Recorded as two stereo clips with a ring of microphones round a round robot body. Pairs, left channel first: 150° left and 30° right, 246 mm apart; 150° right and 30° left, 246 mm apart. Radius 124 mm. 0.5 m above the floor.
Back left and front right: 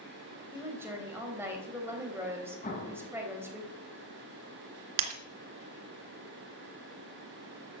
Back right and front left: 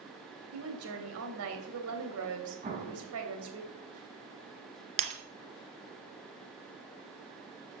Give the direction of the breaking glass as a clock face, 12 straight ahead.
1 o'clock.